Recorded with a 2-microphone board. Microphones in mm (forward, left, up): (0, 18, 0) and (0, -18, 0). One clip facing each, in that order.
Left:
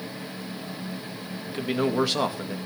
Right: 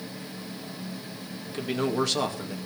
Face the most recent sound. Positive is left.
turn(degrees=10)  # may be behind; listen again after turning